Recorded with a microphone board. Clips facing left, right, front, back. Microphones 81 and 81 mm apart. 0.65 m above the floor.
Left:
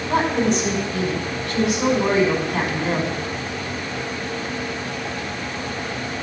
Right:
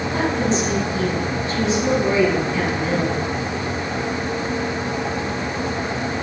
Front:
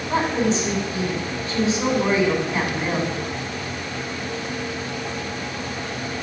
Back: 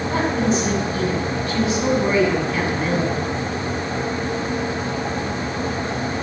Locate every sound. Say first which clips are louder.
0.1 s a woman speaking: left 3 dB, even; 70° left, 6 m